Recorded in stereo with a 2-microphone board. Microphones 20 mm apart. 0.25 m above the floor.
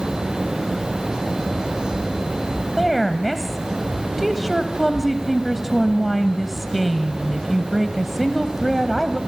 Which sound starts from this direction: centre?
A woman speaking, at 2.8 s.